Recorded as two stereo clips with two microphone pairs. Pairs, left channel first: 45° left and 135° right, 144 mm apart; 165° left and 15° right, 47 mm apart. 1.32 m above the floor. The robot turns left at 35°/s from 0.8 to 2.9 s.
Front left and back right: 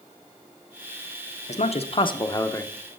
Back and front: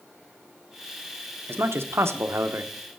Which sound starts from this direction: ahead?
A man speaking, at 1.5 s.